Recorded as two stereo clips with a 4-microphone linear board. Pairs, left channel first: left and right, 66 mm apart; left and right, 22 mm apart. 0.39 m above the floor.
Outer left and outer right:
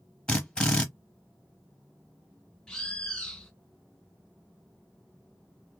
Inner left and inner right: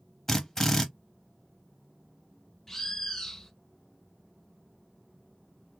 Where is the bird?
10° left (ahead or behind), 0.7 m.